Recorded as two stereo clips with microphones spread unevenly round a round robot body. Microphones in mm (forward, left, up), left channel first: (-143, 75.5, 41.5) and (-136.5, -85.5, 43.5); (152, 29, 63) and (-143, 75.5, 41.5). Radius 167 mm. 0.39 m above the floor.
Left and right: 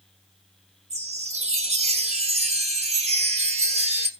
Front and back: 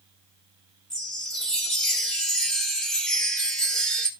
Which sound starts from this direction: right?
A chime, at 0.9 s.